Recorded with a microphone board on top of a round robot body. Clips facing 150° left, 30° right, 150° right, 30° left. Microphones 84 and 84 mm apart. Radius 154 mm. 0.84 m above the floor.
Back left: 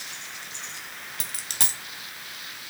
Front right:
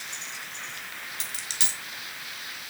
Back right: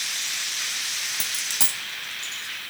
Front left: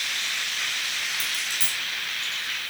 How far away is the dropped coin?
About 2.5 m.